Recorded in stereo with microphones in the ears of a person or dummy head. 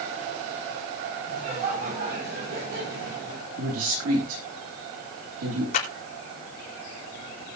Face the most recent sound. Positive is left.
turn(degrees=50)  # may be behind; listen again after turning